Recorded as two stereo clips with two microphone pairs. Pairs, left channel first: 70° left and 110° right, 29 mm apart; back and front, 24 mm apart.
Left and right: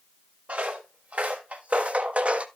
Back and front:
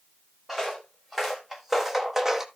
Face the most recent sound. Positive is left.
turn(degrees=-70)